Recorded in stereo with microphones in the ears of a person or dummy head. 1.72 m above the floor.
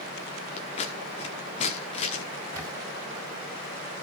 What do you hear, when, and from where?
0.6 s scissors: 35° left (ahead or behind), 1.1 m
2.5 s a camera shutter: 20° right (ahead or behind), 2.5 m